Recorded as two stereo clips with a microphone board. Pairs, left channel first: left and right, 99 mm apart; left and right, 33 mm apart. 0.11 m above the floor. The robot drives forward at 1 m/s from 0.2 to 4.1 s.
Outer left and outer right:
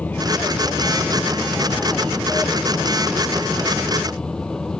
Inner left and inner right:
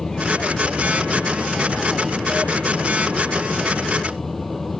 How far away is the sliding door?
I don't hear a sliding door.